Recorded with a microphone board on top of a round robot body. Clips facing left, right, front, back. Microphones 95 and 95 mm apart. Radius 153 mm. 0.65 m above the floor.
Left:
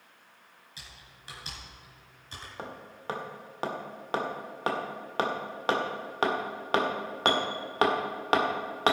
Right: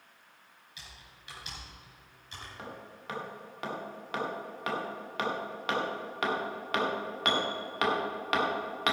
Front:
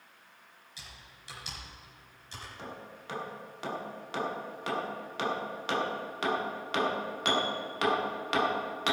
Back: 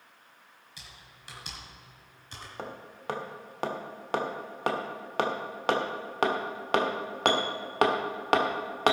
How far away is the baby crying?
No baby crying in this recording.